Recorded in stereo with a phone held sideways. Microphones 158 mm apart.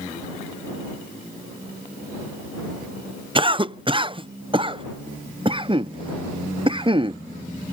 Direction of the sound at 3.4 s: 35° right (ahead or behind).